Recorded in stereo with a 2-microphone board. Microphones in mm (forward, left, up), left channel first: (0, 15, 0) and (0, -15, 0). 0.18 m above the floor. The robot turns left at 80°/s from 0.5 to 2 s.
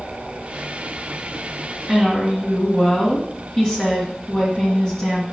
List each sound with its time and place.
1.9 s a woman speaking: 30° left (ahead or behind), 2 m; by 5.2 s 25° left (ahead or behind), 2 m